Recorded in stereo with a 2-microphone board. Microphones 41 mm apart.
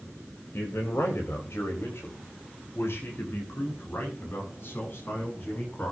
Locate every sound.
0.5 s a man speaking: 75° left (ahead or behind), 3.5 m; by 5.9 s 45° left (ahead or behind), 8.5 m